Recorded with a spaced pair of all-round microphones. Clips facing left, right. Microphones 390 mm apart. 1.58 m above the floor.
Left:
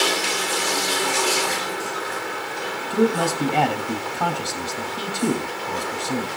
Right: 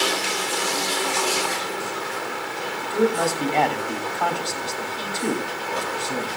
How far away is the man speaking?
About 3 m.